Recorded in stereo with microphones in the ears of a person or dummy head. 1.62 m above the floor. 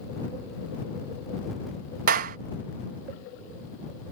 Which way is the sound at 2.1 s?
55° right (ahead or behind).